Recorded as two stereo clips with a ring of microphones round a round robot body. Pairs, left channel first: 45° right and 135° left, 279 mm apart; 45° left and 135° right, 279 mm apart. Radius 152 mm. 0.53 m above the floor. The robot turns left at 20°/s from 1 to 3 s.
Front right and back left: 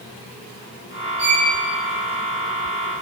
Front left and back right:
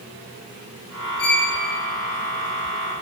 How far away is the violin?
About 2 m.